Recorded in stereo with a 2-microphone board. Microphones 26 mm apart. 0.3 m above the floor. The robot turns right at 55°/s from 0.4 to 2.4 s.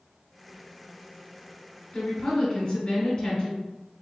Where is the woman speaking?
15° left (ahead or behind), 1.3 m; by 3.6 s 25° left (ahead or behind), 1.3 m.